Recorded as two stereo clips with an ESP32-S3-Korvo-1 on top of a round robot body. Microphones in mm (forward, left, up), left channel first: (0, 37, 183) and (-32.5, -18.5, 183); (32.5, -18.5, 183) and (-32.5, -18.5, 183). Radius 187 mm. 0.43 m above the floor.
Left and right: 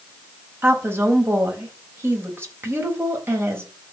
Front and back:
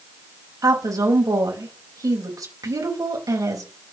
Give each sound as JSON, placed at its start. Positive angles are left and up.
{"t": 0.6, "sound": "a woman speaking", "azimuth_deg": -170, "distance_m": 4.5}